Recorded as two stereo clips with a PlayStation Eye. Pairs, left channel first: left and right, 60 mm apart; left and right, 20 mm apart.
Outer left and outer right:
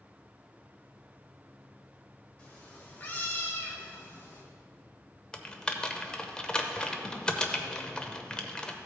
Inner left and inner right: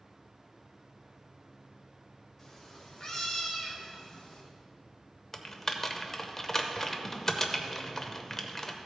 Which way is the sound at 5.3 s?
15° left (ahead or behind).